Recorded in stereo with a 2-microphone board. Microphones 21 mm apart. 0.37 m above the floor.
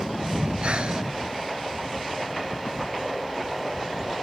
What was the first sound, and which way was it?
Breathing, 65° right (ahead or behind).